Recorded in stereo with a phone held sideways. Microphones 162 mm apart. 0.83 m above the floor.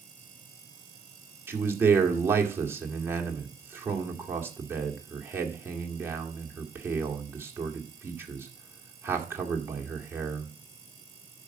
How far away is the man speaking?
About 1.8 m.